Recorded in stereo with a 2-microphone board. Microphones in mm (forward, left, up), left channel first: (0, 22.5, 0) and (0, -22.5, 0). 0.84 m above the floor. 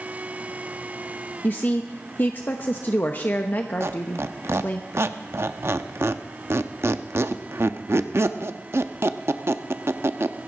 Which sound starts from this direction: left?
A woman speaking, at 1.4 s.